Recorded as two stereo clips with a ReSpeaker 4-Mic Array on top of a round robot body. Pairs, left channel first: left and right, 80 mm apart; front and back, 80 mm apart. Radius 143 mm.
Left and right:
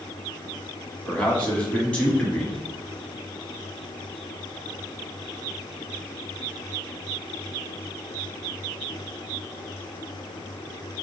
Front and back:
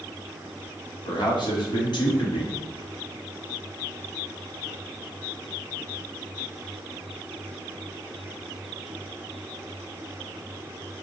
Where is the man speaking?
20° left, 1.9 m.